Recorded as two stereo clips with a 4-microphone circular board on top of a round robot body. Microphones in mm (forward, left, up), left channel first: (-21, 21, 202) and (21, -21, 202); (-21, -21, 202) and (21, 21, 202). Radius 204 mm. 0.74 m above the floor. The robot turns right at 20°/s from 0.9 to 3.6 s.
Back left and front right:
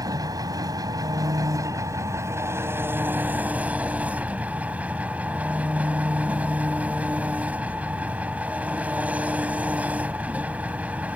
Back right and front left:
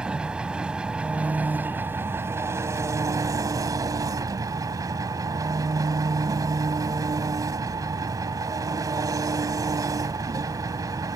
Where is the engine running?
30° right; by 11.2 s 20° left.